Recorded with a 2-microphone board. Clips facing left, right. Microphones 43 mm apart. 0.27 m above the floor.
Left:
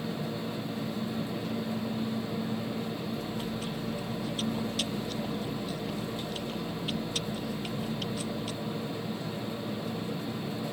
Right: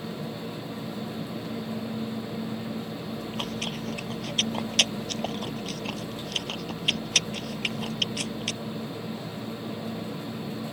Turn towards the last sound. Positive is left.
turn(degrees=-75)  # may be behind; listen again after turning